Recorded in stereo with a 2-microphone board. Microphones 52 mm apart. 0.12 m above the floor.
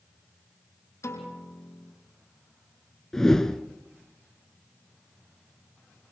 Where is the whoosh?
10° left (ahead or behind), 1.4 m.